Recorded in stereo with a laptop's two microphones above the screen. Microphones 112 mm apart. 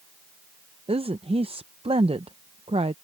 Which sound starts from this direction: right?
A woman speaking, at 0.9 s.